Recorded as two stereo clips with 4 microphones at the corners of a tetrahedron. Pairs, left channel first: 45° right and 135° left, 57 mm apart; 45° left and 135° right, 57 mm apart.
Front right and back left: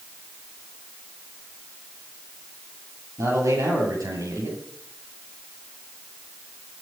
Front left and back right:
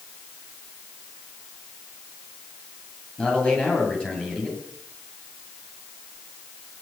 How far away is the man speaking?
About 9 m.